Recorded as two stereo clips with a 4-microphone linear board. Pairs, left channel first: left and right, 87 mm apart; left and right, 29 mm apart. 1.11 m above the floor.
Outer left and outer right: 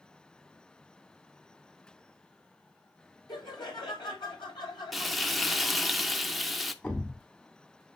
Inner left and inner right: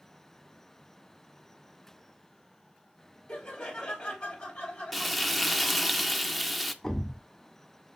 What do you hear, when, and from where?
3.3 s laughter: 60° left (ahead or behind), 3 m
4.9 s frying: centre (ahead or behind), 0.5 m
6.8 s a thud: 20° left (ahead or behind), 1.5 m